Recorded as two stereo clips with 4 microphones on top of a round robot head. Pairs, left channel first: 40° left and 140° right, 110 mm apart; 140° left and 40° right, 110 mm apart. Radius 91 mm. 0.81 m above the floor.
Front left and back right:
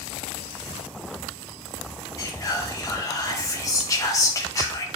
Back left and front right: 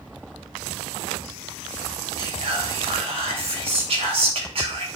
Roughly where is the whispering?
Ahead.